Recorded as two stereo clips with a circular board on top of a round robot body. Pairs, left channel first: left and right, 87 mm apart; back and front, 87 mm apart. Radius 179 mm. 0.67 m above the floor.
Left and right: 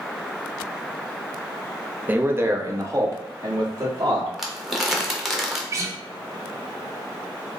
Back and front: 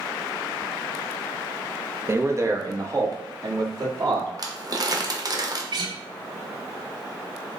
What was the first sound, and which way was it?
A man speaking, 35° right.